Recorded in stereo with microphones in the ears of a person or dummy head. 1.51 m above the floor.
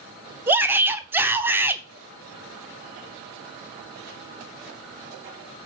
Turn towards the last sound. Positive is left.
turn(degrees=-10)  # may be behind; listen again after turning